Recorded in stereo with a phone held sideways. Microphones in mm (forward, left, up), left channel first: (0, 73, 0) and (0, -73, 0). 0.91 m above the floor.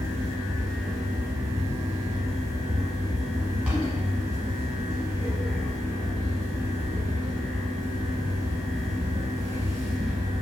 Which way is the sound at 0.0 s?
5° right (ahead or behind).